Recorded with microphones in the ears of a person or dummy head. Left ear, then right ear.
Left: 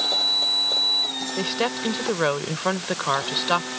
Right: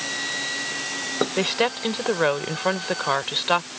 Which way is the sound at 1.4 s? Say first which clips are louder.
Right 1 dB; 20° right (ahead or behind).